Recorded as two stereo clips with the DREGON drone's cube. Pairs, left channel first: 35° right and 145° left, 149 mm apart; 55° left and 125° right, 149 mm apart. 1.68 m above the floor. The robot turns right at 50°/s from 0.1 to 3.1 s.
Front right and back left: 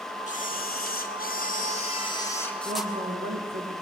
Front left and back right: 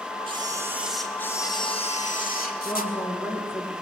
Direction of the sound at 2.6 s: 120° left.